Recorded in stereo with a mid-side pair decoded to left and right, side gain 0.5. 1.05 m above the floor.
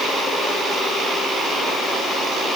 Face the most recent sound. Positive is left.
No sound to turn to.